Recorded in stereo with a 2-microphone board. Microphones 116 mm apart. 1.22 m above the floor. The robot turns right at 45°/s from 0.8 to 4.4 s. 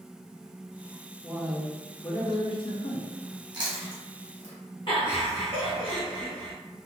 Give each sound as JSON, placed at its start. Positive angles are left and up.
{"t": 1.2, "sound": "a man speaking", "azimuth_deg": -10, "distance_m": 0.5}
{"t": 3.5, "sound": "chewing", "side_deg": -35, "distance_m": 0.9}
{"t": 4.9, "sound": "laughter", "side_deg": 50, "distance_m": 1.4}